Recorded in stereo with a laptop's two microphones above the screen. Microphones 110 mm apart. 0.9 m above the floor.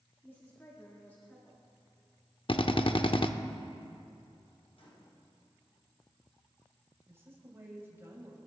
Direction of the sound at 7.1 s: 25° right (ahead or behind).